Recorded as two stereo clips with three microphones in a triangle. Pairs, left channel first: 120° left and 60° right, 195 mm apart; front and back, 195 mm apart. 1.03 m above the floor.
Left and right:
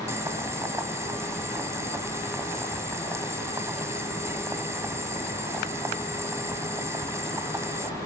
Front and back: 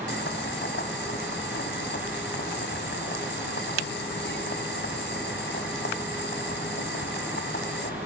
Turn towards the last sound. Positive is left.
turn(degrees=15)